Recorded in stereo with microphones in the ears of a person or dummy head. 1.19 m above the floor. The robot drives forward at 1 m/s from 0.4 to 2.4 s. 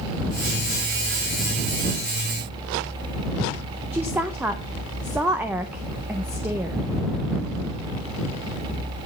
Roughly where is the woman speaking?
Centre.